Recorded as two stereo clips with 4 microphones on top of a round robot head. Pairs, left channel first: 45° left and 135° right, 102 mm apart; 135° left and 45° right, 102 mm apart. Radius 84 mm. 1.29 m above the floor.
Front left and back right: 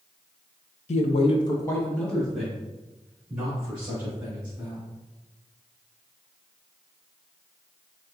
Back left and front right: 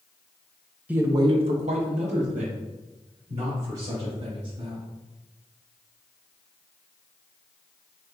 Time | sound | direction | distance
0.9 | a man speaking | 35° left | 0.6 m